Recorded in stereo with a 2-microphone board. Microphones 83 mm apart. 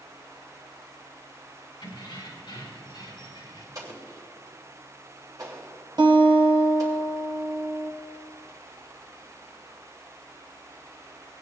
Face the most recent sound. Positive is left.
turn(degrees=-55)  # may be behind; listen again after turning